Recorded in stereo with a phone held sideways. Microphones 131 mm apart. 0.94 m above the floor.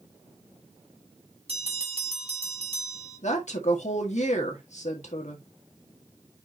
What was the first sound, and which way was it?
A bell, 50° right (ahead or behind).